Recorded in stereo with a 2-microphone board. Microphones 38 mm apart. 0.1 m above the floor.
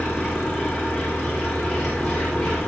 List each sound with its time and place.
0.0 s an engine running: 10° left (ahead or behind), 7.5 m